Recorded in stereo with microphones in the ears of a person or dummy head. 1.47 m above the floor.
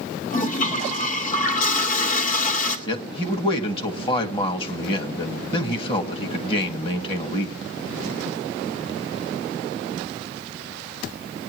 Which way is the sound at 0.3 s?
50° left (ahead or behind).